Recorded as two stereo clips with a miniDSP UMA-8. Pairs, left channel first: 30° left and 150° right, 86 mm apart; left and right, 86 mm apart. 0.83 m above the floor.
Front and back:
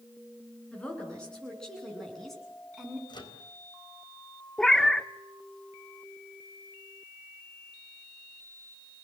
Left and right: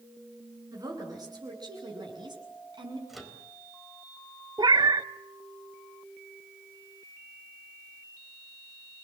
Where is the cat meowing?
55° right, 0.8 m.